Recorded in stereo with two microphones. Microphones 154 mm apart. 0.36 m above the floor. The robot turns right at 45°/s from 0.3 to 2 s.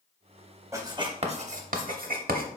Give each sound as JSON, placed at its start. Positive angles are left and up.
{"t": 0.7, "sound": "writing", "side_deg": -20, "distance_m": 0.6}